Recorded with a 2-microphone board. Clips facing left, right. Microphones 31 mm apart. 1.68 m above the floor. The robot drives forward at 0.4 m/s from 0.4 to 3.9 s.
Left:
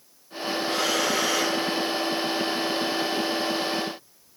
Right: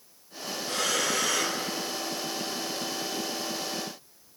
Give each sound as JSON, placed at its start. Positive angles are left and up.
{"t": 0.7, "sound": "breathing", "side_deg": 20, "distance_m": 1.3}